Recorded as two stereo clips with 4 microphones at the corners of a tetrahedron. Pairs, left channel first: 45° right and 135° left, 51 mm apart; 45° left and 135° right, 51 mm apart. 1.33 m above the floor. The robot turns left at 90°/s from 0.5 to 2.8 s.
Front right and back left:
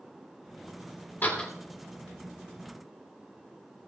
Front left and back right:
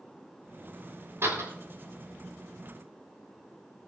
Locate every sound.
1.2 s a door slam: 100° right, 3.5 m; by 1.5 s 125° right, 3.5 m